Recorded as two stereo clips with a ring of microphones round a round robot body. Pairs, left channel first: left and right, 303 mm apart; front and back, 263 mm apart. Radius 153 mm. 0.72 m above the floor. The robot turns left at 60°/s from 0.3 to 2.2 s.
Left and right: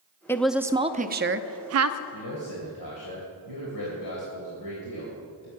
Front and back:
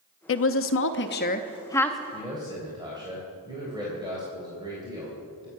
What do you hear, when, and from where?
0.3 s a woman speaking: 10° left, 0.7 m; by 2.0 s 95° right, 0.7 m
2.1 s a man speaking: 110° left, 3.5 m; by 5.5 s 105° left, 3.5 m